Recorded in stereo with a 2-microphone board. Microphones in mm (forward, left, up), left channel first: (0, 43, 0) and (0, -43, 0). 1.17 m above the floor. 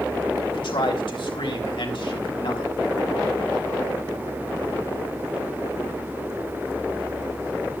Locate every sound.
0.5 s a man speaking: 75° left (ahead or behind), 3.5 m